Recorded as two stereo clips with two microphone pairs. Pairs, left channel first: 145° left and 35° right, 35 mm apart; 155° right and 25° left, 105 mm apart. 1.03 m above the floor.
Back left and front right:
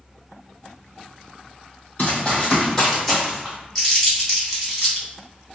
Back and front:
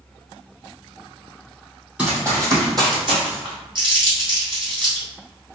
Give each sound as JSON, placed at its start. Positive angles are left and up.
{"t": 2.0, "sound": "running footsteps", "azimuth_deg": 100, "distance_m": 1.8}
{"t": 3.8, "sound": "crumpling", "azimuth_deg": 60, "distance_m": 1.8}